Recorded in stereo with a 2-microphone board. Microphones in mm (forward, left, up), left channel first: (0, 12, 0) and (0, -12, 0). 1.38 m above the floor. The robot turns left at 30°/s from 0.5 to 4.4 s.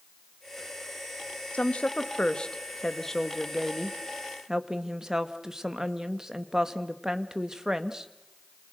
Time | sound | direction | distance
1.5 | a woman speaking | 65° left | 1.7 m